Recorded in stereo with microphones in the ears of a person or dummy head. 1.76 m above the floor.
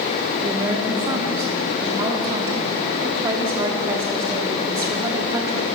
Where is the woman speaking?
20° right (ahead or behind), 0.7 m.